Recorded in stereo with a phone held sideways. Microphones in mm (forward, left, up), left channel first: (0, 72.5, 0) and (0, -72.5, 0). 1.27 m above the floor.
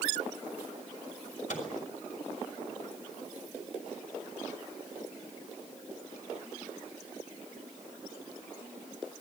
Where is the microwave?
65° left (ahead or behind), 5.5 m.